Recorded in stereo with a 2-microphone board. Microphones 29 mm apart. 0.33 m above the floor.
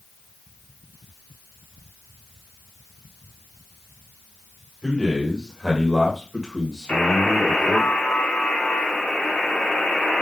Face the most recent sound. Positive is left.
turn(degrees=65)  # may be behind; listen again after turning